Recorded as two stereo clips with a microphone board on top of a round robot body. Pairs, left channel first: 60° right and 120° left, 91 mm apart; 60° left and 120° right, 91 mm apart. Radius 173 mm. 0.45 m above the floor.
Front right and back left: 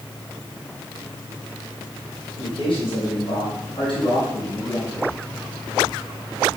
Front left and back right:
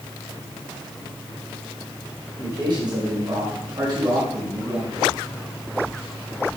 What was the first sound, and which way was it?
A man speaking, 85° right.